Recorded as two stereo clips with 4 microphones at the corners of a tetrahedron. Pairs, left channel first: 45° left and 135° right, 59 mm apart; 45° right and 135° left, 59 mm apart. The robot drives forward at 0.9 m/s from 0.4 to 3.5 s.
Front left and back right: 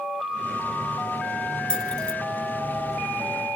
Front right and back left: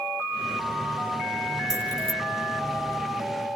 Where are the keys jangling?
30° right.